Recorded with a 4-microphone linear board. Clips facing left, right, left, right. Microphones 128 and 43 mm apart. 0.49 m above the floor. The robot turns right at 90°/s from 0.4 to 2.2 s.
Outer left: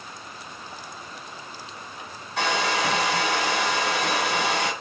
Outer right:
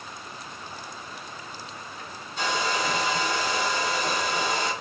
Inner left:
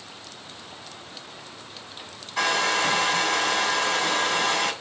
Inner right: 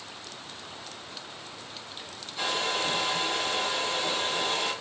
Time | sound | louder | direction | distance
2.4 | a hair dryer | outer left 3 dB, inner left 7 dB | 75° left (ahead or behind) | 2.5 m